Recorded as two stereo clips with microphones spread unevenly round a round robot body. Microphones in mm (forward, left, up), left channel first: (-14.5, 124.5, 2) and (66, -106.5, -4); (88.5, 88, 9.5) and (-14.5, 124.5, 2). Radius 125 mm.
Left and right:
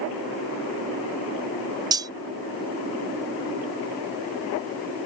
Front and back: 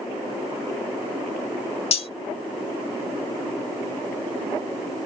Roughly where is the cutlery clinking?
Ahead.